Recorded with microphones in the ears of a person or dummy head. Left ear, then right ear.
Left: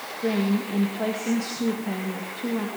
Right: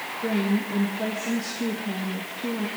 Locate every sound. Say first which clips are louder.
0.2 s a woman speaking: left 2 dB; 20° left (ahead or behind), 1.7 m